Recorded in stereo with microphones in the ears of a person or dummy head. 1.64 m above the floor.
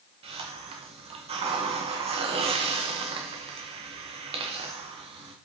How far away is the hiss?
About 0.9 m.